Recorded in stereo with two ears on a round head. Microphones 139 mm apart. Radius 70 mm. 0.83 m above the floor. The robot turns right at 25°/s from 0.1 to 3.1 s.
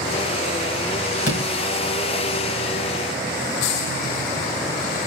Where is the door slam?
55° left (ahead or behind), 7.5 m; by 1.5 s 50° left (ahead or behind), 7.5 m.